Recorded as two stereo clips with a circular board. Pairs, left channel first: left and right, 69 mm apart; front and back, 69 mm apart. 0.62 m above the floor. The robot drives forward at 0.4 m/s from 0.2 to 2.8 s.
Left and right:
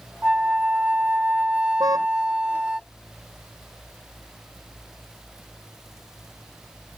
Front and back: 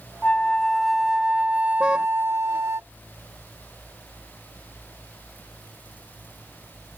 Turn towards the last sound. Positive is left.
turn(degrees=-105)